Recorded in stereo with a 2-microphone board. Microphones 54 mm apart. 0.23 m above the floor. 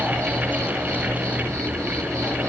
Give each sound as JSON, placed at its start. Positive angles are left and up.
{"t": 0.0, "sound": "an insect", "side_deg": -70, "distance_m": 3.5}